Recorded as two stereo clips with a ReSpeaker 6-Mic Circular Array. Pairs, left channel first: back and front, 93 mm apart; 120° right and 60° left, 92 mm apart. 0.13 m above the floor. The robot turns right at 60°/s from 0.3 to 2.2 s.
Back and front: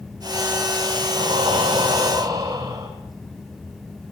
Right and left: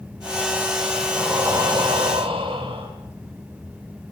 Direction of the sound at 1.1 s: 15° right.